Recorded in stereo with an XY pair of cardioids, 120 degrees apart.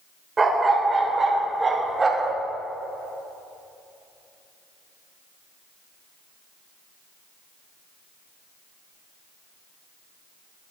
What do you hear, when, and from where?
0.4 s a dog barking: 25° right, 2.5 m; by 2.4 s 30° right, 1.6 m